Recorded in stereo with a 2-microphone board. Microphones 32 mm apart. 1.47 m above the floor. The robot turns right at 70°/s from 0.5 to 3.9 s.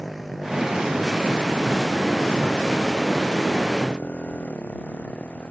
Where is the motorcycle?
Centre (ahead or behind); by 5.5 s 45° left (ahead or behind).